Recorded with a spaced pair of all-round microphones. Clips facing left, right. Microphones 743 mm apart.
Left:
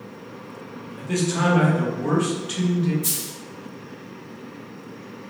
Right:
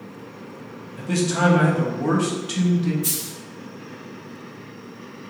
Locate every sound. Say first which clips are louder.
1.0 s a man speaking: right 2 dB; 65° right (ahead or behind), 0.8 m
3.0 s a dropped coin: right 2 dB; 15° left (ahead or behind), 1.8 m